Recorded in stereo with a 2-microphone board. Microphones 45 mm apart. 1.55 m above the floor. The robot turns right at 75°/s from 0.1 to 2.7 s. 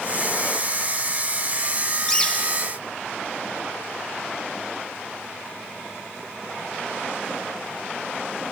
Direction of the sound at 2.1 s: 20° left.